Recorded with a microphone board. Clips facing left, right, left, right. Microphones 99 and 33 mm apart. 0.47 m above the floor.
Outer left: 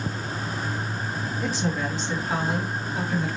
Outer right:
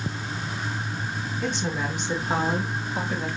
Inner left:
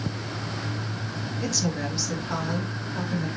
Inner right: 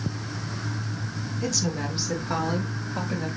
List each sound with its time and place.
1.4 s a woman speaking: 5° left (ahead or behind), 1.0 m; by 3.3 s 45° right (ahead or behind), 2 m